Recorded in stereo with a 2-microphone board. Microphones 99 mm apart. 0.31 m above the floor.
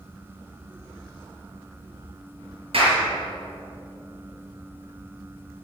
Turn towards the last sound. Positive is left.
turn(degrees=-70)  # may be behind; listen again after turning